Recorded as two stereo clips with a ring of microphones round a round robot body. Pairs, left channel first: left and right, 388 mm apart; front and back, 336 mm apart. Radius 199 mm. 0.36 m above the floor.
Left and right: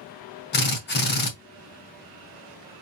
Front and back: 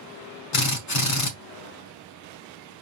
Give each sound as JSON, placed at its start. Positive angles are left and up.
{"t": 0.5, "sound": "a drill", "azimuth_deg": 30, "distance_m": 2.0}